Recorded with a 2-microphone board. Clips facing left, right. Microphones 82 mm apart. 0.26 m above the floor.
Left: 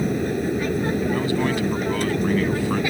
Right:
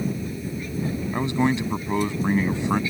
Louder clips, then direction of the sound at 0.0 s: Left 6 dB; 65° left (ahead or behind).